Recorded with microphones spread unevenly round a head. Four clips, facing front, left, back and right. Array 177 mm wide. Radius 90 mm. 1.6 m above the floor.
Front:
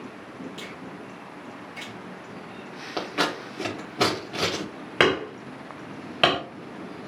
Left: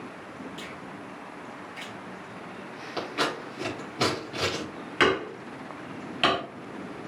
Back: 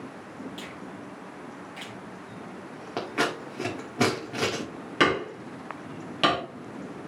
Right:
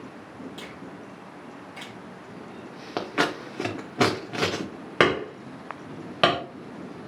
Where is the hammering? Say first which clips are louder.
Right 2 dB, front 2 dB; 75° right, 3 m.